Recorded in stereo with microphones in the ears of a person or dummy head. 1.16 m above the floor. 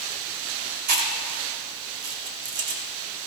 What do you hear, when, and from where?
0.9 s chewing: 50° right (ahead or behind), 2.5 m